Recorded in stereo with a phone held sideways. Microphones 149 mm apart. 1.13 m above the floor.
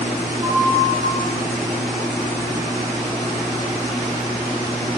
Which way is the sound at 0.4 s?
30° right (ahead or behind).